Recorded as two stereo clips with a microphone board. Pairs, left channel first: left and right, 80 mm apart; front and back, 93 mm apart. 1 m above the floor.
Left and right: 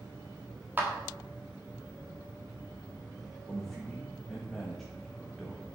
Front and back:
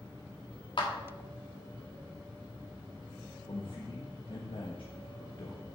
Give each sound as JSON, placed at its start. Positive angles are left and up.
{"t": 0.8, "sound": "a clap", "azimuth_deg": -25, "distance_m": 1.5}
{"t": 3.5, "sound": "a man speaking", "azimuth_deg": 5, "distance_m": 1.1}